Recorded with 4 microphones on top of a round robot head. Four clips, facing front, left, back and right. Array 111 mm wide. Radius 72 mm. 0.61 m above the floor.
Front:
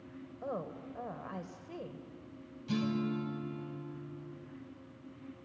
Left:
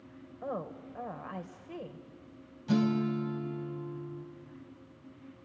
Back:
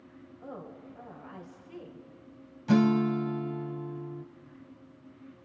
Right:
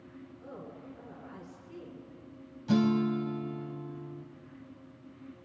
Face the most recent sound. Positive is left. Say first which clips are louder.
# right 2 dB, back 10 dB
turn(degrees=-175)